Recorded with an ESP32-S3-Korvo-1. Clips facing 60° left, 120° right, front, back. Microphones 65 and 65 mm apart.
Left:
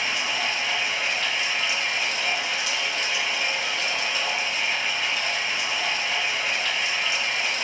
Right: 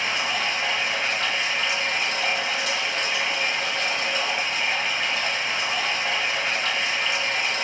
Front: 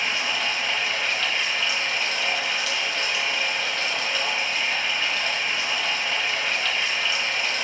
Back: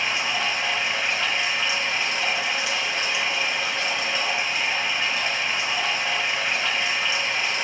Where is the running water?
120° right, 0.9 m.